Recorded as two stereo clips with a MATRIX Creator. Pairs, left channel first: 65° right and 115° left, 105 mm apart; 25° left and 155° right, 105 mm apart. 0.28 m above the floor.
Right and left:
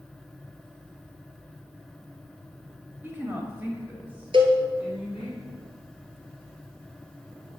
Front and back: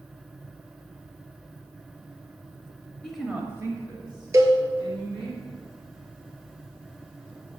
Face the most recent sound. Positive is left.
turn(degrees=145)